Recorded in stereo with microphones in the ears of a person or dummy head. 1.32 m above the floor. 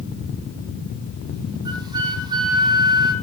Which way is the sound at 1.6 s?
20° right (ahead or behind).